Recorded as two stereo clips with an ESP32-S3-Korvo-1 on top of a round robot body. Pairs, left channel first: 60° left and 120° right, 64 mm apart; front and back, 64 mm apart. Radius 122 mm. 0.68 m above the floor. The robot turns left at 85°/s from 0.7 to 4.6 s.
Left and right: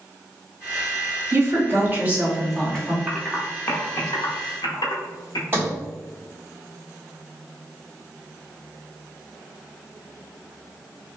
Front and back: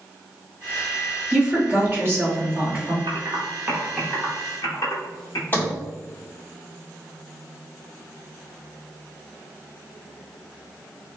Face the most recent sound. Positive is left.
turn(degrees=-60)